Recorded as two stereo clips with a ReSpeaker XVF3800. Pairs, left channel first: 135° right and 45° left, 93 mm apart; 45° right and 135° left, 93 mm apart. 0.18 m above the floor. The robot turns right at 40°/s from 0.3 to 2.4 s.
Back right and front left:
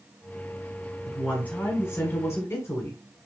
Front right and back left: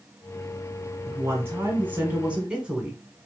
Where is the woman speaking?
150° left, 1.2 m; by 3.3 s 155° right, 1.2 m.